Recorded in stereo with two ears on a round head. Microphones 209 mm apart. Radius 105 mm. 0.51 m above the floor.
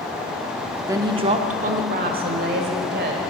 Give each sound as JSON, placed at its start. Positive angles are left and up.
{"t": 0.9, "sound": "a woman speaking", "side_deg": -15, "distance_m": 0.7}